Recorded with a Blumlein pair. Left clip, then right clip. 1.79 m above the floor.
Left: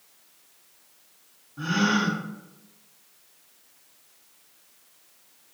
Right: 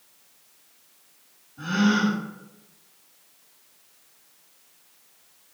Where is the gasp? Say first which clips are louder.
Even; 40° left, 1.3 m.